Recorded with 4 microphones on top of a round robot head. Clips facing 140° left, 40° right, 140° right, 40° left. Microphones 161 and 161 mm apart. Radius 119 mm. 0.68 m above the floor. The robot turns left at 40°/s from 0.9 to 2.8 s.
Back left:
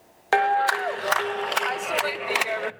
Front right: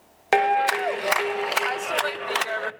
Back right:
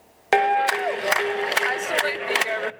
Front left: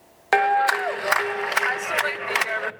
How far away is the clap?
About 0.7 m.